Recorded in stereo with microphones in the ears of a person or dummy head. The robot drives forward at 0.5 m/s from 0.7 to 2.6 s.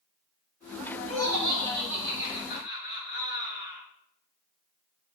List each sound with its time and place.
1.1 s laughter: 75° right (ahead or behind), 1.6 m; by 3.8 s 55° right (ahead or behind), 1.9 m